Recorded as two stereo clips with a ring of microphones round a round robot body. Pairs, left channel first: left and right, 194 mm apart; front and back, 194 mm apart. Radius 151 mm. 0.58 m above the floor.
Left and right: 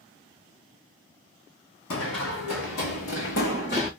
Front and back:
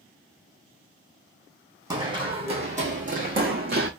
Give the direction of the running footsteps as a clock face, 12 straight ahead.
8 o'clock.